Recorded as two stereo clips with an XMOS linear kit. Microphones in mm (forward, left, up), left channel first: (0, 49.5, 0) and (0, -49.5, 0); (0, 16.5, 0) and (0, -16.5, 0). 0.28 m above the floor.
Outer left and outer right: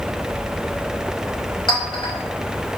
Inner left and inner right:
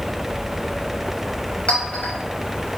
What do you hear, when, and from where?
1.7 s a clink: 50° left (ahead or behind), 0.7 m